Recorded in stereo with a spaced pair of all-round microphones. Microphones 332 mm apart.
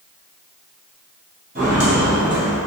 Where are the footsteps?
25° right (ahead or behind), 1.7 m; by 2.6 s 10° right (ahead or behind), 1.9 m.